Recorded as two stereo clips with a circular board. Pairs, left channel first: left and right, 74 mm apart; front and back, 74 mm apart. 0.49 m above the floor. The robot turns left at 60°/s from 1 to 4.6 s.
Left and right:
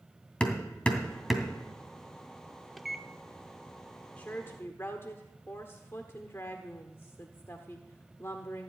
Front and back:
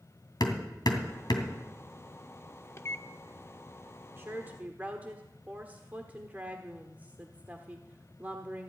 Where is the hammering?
15° left, 2 m; by 1.5 s 15° right, 2 m.